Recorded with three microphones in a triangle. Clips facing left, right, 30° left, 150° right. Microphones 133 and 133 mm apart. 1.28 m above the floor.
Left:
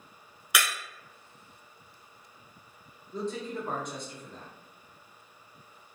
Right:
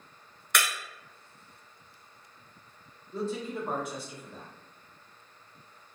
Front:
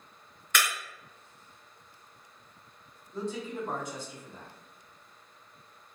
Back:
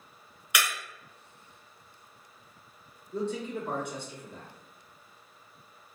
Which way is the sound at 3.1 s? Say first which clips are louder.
Right 1 dB, back 3 dB; 175° right.